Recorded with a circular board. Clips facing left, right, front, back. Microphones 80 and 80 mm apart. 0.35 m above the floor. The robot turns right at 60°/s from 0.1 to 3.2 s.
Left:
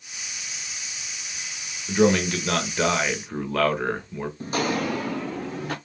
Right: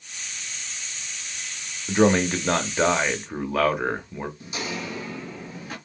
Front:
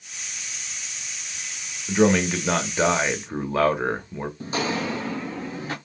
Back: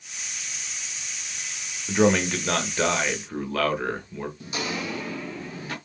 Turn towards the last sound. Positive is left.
turn(degrees=65)